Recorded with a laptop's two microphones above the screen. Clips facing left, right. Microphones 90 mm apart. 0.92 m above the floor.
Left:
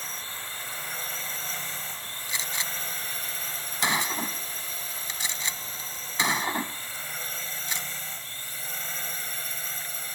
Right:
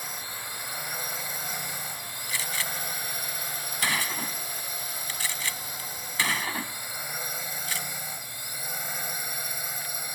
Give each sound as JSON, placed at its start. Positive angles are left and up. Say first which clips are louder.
{"t": 0.0, "sound": "a drone", "louder": "right 1 dB", "side_deg": -15}
{"t": 2.3, "sound": "a gunshot", "louder": "right 1 dB", "side_deg": 20}